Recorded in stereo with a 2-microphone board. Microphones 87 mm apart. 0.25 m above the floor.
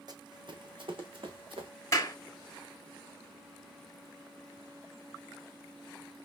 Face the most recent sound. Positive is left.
turn(degrees=30)  # may be behind; listen again after turning